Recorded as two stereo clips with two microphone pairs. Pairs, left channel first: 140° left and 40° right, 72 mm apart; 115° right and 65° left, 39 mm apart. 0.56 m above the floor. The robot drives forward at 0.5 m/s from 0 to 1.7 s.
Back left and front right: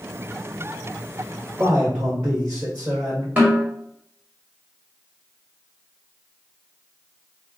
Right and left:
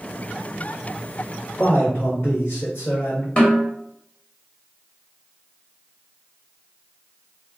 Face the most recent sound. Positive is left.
turn(degrees=-95)